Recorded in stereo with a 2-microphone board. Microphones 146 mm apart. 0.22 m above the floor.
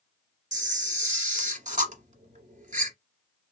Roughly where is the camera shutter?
Right.